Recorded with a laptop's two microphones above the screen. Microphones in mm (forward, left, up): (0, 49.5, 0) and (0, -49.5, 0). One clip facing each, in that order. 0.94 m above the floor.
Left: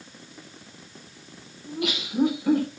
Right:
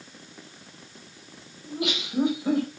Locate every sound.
1.6 s laughter: 20° right (ahead or behind), 4.5 m; by 2.7 s 25° right (ahead or behind), 4 m